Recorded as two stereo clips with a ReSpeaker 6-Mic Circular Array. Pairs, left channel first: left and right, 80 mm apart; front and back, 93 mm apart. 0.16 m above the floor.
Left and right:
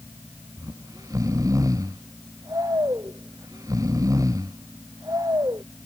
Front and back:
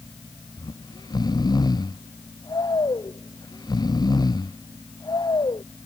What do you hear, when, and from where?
0.6 s snoring: 45° right